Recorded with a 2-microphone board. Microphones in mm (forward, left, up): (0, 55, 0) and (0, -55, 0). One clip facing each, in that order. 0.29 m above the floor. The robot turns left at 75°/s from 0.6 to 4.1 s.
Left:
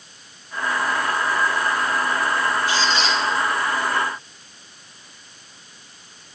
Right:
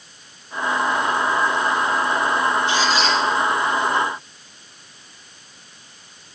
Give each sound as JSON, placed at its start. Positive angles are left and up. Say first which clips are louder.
{"t": 2.7, "sound": "a squeak", "louder": "right 2 dB", "azimuth_deg": -155, "distance_m": 3.5}